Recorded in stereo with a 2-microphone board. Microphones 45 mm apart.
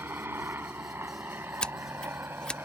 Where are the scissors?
20° left (ahead or behind).